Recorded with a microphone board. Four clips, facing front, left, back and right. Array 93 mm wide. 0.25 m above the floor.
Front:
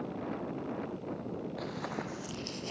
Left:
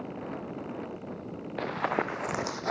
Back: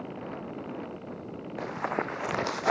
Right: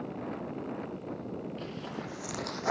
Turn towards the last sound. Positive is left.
turn(degrees=-170)